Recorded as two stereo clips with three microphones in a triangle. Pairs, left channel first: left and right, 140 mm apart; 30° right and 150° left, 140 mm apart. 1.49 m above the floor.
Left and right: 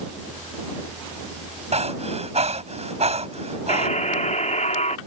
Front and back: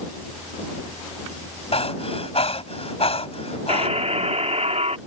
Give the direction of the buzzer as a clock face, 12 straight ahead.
8 o'clock.